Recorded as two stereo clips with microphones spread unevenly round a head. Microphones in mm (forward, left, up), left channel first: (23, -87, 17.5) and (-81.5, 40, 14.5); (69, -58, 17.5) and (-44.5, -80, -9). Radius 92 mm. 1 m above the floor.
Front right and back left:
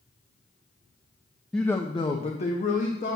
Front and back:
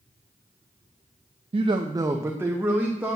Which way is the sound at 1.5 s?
140° right.